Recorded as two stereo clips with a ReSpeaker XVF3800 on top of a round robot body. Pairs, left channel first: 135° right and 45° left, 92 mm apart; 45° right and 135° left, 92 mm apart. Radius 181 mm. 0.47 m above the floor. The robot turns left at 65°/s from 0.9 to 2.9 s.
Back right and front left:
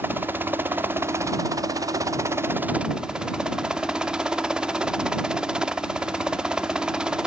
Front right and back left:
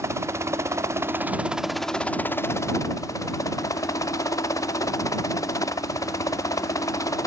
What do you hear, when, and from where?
0.0 s a helicopter: 100° left; by 7.3 s 30° right